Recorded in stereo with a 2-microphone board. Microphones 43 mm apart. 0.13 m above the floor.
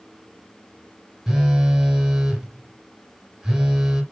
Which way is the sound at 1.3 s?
10° right (ahead or behind).